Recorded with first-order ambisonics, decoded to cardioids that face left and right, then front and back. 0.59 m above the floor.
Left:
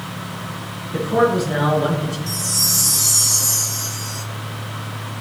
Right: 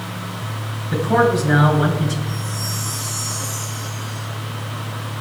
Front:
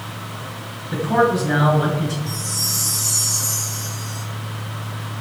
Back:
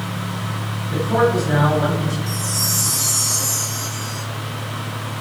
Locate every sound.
0.9 s a man speaking: 85° right, 7.5 m
2.3 s a chime: 115° left, 3 m